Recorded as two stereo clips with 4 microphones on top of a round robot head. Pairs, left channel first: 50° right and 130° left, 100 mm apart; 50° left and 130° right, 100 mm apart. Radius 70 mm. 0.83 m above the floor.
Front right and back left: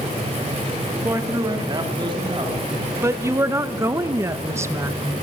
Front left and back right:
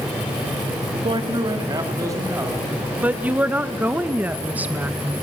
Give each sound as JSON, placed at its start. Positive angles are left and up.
{"t": 1.0, "sound": "a man speaking", "azimuth_deg": -165, "distance_m": 1.2}
{"t": 3.0, "sound": "a woman speaking", "azimuth_deg": 170, "distance_m": 0.7}